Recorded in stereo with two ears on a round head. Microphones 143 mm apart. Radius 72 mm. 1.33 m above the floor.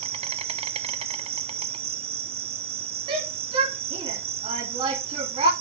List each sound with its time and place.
0.0 s an insect: 40° right (ahead or behind), 1.1 m
3.1 s a shout: 30° right (ahead or behind), 3 m